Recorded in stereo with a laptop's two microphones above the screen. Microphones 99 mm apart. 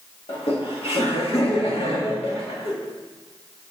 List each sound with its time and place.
0.3 s laughter: 75° left (ahead or behind), 2.0 m